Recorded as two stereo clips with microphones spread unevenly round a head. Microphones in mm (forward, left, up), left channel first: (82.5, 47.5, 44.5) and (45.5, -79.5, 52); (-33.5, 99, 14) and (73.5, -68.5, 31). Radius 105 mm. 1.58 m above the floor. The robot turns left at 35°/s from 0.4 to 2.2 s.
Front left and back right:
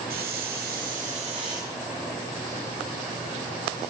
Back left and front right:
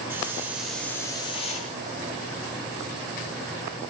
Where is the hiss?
135° right, 2 m; by 1.7 s straight behind, 2 m.